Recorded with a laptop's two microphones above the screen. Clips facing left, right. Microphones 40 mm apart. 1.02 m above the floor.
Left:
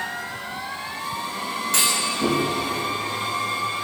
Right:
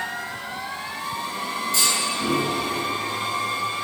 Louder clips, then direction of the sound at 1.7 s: Left 1 dB; 70° left (ahead or behind).